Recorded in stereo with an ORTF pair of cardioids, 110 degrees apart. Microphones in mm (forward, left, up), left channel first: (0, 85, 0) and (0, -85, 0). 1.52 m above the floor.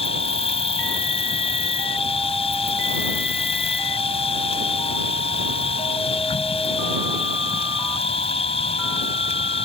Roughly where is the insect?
Ahead left.